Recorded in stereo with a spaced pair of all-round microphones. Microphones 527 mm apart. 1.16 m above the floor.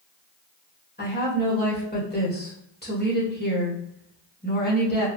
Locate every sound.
1.0 s a woman speaking: 20° left (ahead or behind), 1.4 m